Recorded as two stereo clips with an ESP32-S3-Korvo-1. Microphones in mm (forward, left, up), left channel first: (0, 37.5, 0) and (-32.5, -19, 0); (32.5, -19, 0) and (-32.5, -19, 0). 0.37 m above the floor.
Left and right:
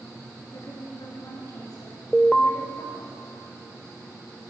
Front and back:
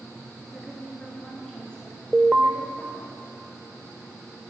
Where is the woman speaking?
85° left, 5 m; by 3.1 s 65° left, 5.5 m.